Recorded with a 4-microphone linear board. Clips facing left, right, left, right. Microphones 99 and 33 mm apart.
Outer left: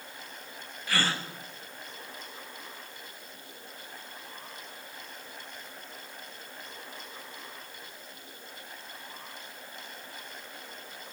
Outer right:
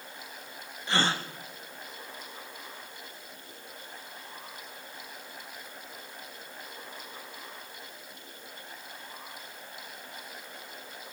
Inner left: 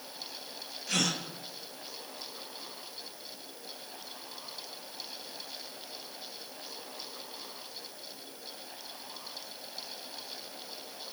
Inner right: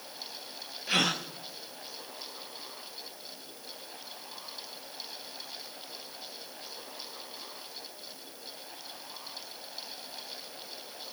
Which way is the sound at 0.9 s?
25° right (ahead or behind).